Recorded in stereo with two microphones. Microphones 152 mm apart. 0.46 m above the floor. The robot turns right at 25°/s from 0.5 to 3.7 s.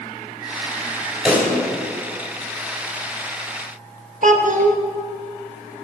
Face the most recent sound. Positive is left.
turn(degrees=-55)  # may be behind; listen again after turning